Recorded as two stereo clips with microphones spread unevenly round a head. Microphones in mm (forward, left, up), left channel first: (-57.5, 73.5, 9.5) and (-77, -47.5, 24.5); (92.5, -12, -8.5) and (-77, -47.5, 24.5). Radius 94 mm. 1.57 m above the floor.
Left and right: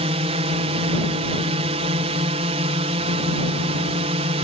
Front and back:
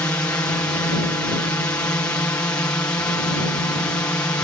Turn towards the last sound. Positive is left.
turn(degrees=-60)